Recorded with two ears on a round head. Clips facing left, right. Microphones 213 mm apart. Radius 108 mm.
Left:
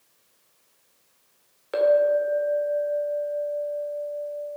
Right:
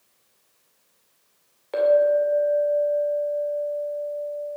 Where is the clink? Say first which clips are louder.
Right 1 dB; 10° left (ahead or behind), 2 m.